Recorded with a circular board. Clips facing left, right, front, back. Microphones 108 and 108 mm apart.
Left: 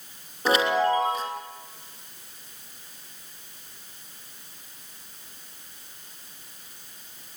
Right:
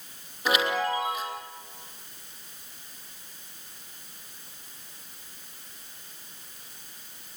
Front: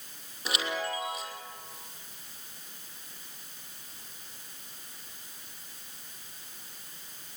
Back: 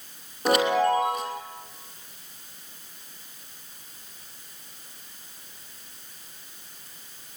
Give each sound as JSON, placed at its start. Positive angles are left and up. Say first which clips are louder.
{"t": 0.5, "sound": "a chime", "louder": "left 4 dB, back 13 dB", "azimuth_deg": 145, "distance_m": 3.0}